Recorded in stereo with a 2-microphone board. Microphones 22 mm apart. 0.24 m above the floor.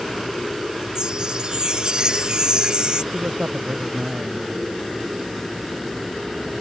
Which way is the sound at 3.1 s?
80° right.